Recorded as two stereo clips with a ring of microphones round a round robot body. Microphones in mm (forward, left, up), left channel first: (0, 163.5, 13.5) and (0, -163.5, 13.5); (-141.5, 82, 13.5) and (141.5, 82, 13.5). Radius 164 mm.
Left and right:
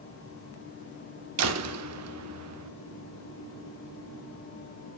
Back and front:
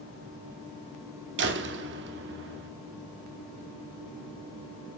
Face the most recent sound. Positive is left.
turn(degrees=-50)